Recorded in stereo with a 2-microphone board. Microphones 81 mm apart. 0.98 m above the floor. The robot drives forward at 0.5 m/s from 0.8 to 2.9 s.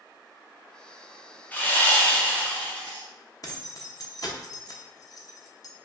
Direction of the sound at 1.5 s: 20° left (ahead or behind).